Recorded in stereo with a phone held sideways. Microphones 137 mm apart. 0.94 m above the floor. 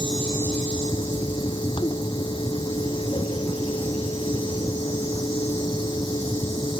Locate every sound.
0.0 s a fan: 35° left (ahead or behind)